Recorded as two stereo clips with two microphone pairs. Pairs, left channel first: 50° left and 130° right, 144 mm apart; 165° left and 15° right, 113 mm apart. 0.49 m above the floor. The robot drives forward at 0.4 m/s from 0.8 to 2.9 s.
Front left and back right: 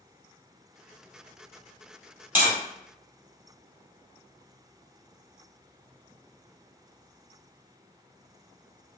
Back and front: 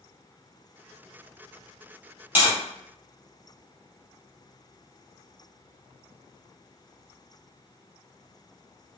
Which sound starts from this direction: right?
Tapping, at 2.4 s.